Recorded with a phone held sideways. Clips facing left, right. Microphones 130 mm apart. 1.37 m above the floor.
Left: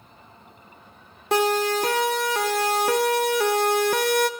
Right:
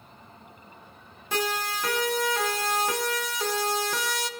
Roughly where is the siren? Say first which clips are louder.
Left 9 dB; left.